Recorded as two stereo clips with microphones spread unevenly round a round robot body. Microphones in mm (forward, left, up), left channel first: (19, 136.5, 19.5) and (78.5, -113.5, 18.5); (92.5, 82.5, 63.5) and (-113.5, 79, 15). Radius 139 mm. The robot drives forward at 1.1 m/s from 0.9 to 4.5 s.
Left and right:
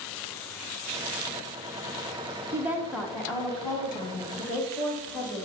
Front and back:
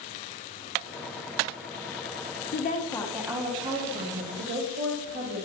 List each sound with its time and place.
2.5 s a woman speaking: 5° right, 1.0 m; by 5.5 s straight behind, 1.9 m